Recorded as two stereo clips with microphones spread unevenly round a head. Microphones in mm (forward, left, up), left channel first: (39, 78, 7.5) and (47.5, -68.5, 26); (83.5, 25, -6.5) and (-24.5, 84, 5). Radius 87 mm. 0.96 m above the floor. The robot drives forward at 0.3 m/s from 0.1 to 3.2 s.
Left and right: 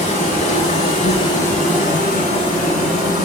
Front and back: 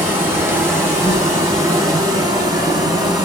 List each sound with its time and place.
0.0 s an insect: 80° left, 3.5 m; by 3.3 s 95° left, 3.5 m